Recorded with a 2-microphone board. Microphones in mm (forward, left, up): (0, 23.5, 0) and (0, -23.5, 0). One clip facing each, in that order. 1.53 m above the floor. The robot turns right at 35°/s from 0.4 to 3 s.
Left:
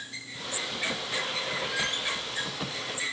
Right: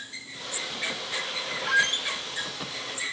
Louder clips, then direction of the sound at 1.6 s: Right 7 dB; 65° right (ahead or behind).